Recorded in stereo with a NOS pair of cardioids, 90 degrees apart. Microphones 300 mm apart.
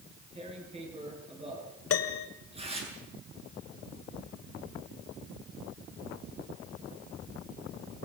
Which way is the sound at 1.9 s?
50° left.